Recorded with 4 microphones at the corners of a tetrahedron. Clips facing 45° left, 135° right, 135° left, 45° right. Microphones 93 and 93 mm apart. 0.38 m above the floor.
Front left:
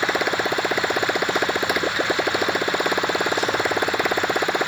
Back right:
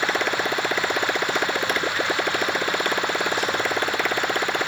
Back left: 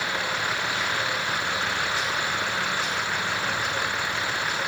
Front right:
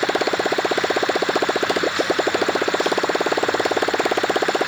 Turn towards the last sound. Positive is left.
turn(degrees=-35)